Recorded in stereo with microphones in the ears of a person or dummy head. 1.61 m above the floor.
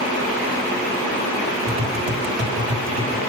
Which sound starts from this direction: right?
Tapping, at 1.7 s.